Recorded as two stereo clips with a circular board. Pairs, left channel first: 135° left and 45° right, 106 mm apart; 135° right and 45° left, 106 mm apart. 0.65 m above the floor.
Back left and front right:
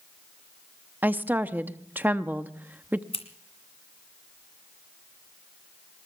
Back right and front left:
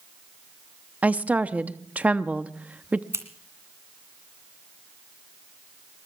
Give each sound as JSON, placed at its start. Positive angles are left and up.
{"t": 1.0, "sound": "a woman speaking", "azimuth_deg": -5, "distance_m": 0.7}
{"t": 3.1, "sound": "scissors", "azimuth_deg": 110, "distance_m": 2.0}